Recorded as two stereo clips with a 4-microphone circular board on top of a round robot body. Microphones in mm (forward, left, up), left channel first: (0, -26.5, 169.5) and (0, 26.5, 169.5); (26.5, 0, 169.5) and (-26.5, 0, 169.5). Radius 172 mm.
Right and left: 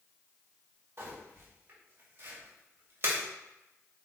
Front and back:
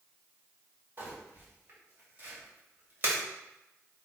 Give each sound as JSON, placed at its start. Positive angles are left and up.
{"t": 1.0, "sound": "crumpling", "azimuth_deg": 130, "distance_m": 3.0}